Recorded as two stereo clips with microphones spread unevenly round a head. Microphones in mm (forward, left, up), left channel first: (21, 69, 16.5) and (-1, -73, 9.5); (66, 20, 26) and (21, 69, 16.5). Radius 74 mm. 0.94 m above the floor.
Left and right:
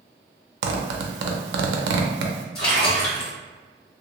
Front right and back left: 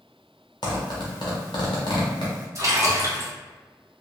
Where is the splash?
95° left, 1.8 m.